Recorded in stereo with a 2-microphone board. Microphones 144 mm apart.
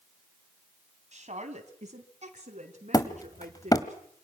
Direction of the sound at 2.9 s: 25° left (ahead or behind).